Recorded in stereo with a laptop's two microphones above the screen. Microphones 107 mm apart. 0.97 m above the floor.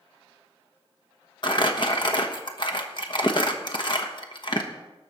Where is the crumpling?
45° left (ahead or behind), 1.1 m.